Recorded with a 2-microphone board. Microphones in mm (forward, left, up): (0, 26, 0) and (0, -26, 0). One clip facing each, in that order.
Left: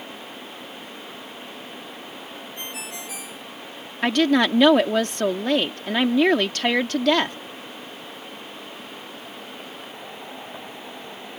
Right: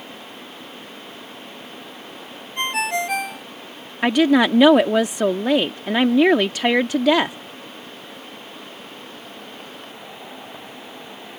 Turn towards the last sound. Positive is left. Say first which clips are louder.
# right 3 dB
turn(degrees=-10)  # may be behind; listen again after turning